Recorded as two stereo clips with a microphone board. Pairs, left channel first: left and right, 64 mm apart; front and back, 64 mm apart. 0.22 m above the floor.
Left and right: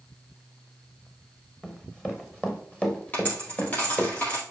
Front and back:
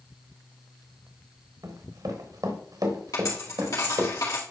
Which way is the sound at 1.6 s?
170° left.